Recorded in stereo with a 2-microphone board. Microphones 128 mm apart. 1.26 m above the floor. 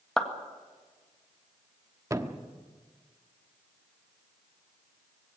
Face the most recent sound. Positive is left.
turn(degrees=-25)  # may be behind; listen again after turning